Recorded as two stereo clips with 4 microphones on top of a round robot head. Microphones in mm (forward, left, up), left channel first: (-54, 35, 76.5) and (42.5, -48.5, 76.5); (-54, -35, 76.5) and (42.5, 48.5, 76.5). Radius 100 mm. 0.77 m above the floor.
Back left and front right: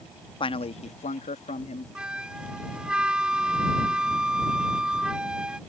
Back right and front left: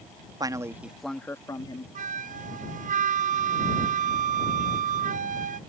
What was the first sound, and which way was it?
A man speaking, 95° left.